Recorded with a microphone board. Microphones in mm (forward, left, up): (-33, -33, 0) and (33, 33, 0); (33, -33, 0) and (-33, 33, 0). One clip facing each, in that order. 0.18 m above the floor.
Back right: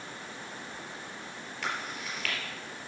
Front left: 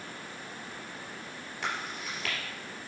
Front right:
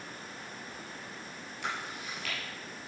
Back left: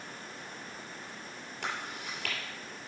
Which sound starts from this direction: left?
Chewing, at 1.6 s.